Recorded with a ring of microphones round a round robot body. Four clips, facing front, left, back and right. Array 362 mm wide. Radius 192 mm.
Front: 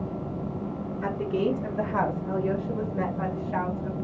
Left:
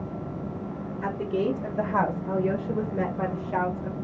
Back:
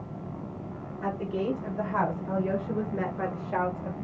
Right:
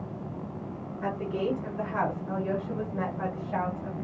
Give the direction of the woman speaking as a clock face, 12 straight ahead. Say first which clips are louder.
Left 3 dB, front 3 dB; 10 o'clock.